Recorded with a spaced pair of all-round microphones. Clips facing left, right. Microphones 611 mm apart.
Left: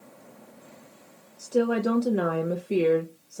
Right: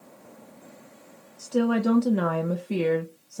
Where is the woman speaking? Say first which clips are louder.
Right 1 dB; 30° right (ahead or behind), 0.5 m.